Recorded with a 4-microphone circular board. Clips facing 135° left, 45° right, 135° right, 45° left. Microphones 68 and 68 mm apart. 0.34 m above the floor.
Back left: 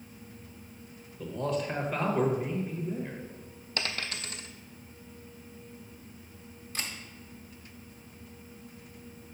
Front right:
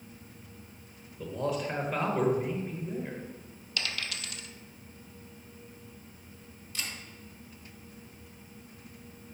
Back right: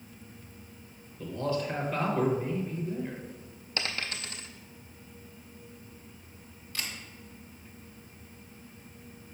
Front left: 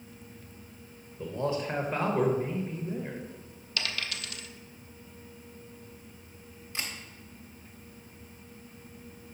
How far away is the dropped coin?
About 0.5 m.